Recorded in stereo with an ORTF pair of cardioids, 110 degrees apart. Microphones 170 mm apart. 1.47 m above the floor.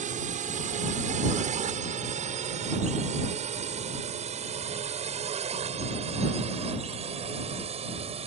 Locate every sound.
0.0 s a drone: 45° right; by 8.3 s 35° right